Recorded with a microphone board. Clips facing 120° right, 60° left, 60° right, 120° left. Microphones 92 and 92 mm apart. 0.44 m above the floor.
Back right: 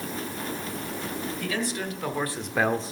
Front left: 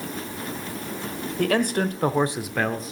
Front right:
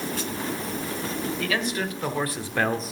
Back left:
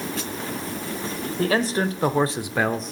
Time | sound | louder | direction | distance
1.4 | a man speaking | front left 11 dB, back left 8 dB | 70° left | 1.5 m